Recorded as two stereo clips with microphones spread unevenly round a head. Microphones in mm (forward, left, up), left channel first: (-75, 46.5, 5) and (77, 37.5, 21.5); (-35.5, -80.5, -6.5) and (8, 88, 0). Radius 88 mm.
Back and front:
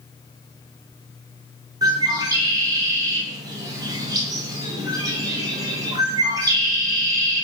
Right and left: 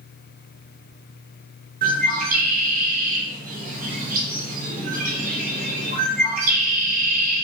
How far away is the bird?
About 0.9 m.